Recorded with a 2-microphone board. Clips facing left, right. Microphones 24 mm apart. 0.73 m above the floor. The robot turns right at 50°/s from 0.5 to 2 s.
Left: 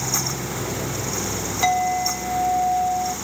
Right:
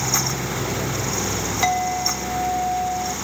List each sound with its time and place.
1.6 s a clink: 10° right (ahead or behind), 0.6 m; by 3.1 s 5° left (ahead or behind), 0.6 m